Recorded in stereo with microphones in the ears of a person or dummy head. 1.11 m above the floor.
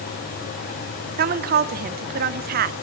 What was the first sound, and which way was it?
A woman speaking, 45° right (ahead or behind).